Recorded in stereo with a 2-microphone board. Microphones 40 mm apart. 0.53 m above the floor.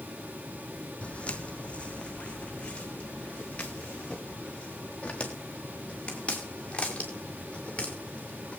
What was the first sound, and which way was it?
Footsteps, 30° left (ahead or behind).